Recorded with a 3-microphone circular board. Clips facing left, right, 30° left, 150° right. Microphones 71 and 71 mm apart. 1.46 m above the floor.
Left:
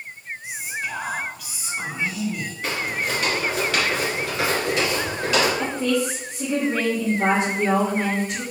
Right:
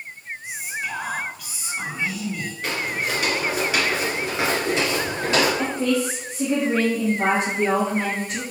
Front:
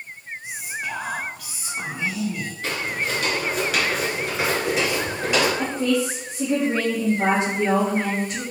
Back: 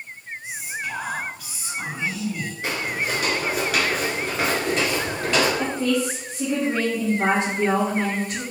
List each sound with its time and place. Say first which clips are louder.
0.4 s whispering: even, even; straight ahead, 0.8 m
2.6 s footsteps: even, even; 165° left, 1.5 m; by 5.5 s 45° right, 2 m
5.6 s a woman speaking: even, front 1 dB; 35° right, 1.5 m